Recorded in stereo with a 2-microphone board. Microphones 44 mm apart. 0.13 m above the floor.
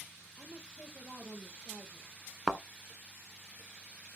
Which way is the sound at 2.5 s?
20° right (ahead or behind).